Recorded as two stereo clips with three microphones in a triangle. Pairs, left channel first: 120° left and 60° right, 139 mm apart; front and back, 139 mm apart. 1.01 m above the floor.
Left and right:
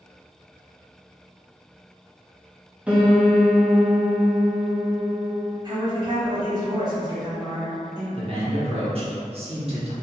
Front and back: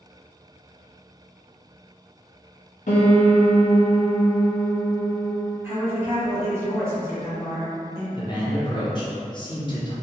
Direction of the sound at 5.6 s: 110° right.